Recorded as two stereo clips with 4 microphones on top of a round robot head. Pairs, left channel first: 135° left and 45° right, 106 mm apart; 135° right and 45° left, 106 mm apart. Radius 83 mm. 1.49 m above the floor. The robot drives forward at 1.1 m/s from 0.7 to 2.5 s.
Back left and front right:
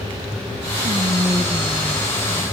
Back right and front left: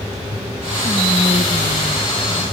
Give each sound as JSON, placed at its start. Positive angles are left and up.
{"t": 0.8, "sound": "whispering", "azimuth_deg": -85, "distance_m": 1.0}